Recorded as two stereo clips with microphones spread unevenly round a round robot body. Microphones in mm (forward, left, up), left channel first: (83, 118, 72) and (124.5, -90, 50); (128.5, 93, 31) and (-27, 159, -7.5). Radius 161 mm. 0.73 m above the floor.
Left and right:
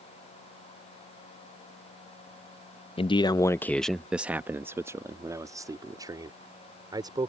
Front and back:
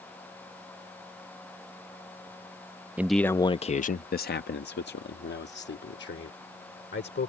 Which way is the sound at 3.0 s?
140° left.